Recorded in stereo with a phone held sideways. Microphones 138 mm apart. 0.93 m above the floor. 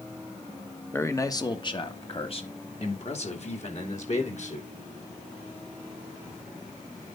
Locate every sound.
0.9 s a man speaking: 15° left (ahead or behind), 1.2 m; by 4.7 s 60° left (ahead or behind), 4 m